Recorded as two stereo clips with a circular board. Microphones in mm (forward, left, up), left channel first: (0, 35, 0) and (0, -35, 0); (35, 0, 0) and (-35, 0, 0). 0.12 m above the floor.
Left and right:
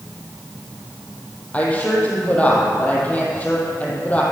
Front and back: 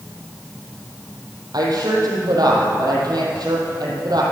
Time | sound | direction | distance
1.5 | a woman speaking | 160° left | 3.5 m